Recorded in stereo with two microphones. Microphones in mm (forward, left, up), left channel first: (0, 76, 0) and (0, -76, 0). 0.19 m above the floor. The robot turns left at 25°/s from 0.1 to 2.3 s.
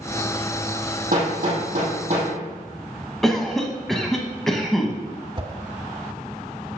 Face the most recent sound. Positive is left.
turn(degrees=-35)  # may be behind; listen again after turning